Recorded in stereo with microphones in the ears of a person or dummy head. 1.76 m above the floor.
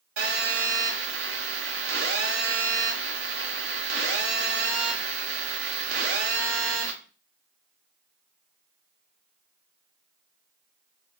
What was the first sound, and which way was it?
A phone buzzing, 75° right (ahead or behind).